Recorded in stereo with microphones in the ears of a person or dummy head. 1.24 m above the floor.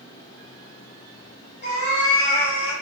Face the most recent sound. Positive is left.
turn(degrees=0)  # may be behind; listen again after turning